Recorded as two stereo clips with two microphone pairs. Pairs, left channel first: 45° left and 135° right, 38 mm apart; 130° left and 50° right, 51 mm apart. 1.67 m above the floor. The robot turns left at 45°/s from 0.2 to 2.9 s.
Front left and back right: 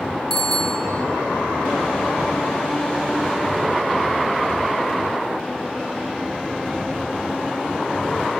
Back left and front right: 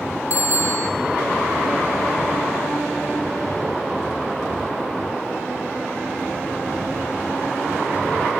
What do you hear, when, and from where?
0.3 s a bicycle bell: 125° left, 3.5 m; by 0.9 s 100° left, 3.5 m